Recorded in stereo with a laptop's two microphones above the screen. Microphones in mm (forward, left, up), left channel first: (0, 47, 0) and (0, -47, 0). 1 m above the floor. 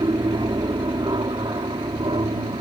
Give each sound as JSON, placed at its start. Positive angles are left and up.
{"t": 0.0, "sound": "an aircraft", "side_deg": -50}